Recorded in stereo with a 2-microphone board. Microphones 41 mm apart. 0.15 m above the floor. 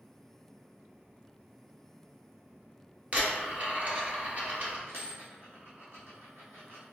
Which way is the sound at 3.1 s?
45° right (ahead or behind).